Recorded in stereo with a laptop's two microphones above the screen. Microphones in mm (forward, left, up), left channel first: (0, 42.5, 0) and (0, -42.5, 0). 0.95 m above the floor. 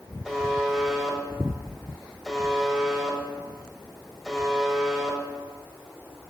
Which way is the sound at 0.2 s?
Centre (ahead or behind).